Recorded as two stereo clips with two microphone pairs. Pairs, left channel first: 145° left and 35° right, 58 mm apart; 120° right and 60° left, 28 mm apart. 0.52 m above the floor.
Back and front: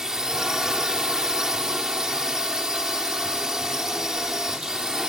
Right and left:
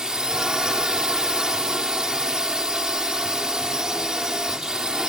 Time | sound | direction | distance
0.0 | a drone | 40° left | ?